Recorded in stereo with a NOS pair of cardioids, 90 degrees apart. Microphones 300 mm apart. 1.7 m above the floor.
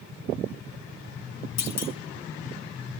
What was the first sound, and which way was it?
A clunk, 60° left.